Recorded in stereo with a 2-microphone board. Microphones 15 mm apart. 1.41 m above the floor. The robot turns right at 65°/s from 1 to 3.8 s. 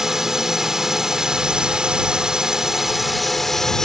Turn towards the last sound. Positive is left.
turn(degrees=40)